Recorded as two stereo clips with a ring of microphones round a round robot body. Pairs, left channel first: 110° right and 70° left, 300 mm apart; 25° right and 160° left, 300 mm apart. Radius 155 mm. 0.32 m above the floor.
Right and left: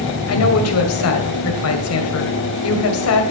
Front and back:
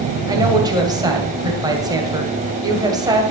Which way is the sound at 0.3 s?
130° right.